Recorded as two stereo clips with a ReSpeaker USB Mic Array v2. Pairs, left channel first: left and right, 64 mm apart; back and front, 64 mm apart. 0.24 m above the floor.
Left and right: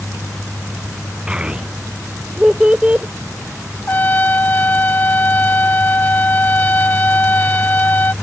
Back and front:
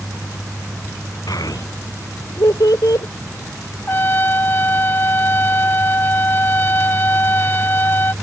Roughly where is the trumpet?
Behind left.